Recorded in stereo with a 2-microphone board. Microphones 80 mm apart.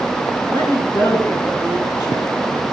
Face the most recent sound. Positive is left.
turn(degrees=60)  # may be behind; listen again after turning